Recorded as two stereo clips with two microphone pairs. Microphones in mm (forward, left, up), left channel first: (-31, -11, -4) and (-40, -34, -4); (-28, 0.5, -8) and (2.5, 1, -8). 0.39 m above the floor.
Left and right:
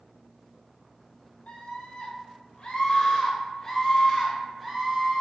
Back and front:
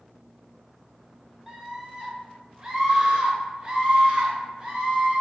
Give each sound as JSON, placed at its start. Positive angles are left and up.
{"t": 1.5, "sound": "a scream", "azimuth_deg": 75, "distance_m": 1.8}